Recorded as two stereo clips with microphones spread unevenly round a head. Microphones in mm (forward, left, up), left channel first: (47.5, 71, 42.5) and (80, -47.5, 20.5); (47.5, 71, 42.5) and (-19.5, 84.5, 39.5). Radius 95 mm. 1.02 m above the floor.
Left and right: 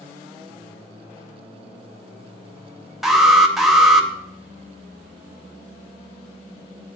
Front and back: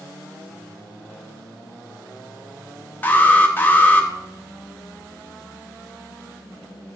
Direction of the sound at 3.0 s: 20° right.